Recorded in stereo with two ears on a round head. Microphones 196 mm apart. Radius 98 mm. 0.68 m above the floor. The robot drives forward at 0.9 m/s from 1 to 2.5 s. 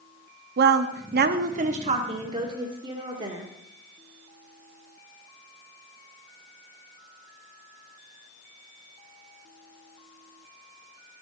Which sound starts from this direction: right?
A woman speaking, at 0.6 s.